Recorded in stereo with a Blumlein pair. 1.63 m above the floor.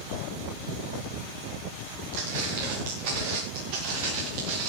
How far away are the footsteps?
About 8.5 m.